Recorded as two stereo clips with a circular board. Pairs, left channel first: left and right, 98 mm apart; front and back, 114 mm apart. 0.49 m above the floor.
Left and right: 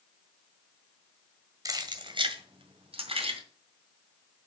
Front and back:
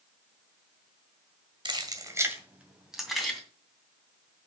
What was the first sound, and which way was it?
Keys jangling, 140° right.